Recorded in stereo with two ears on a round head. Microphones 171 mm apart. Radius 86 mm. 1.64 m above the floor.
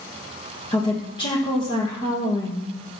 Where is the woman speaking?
25° left (ahead or behind), 1.3 m.